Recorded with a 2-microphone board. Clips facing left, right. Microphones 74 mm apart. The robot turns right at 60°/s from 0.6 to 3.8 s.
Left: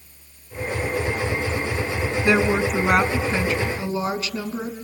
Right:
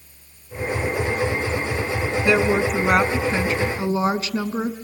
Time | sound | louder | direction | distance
2.2 | a woman speaking | right 1 dB | 145° left | 1.7 m